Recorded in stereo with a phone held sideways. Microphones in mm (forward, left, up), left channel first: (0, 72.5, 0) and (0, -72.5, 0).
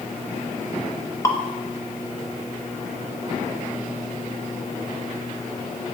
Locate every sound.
1.2 s dripping: 20° left (ahead or behind), 0.7 m